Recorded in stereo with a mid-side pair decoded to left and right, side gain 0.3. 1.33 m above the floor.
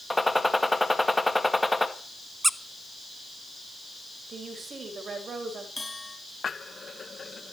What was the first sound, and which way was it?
A gunshot, 10° left.